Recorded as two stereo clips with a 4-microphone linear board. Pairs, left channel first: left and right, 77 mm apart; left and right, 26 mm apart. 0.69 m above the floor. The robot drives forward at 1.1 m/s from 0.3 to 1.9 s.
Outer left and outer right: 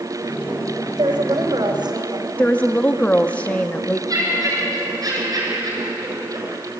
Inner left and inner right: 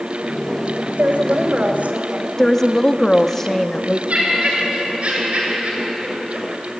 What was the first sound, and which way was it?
A woman speaking, 65° right (ahead or behind).